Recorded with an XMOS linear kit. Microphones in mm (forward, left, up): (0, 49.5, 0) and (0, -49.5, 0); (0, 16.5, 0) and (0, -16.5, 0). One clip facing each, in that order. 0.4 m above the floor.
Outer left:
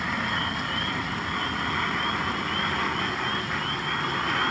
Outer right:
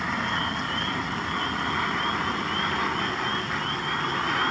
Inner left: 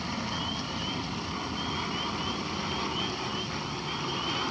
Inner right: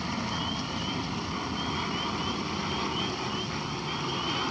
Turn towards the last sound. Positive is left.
turn(degrees=-5)  # may be behind; listen again after turning